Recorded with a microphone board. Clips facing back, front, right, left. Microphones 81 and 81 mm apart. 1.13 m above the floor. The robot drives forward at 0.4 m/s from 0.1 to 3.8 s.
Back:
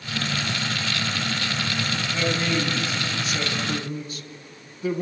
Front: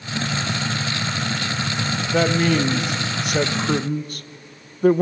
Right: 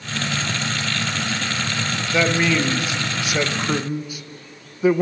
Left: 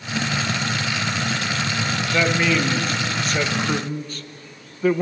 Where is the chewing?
I don't hear chewing.